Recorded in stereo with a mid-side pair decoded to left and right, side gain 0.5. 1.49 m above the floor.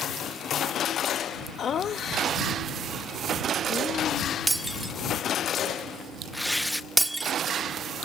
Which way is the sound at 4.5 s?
10° right.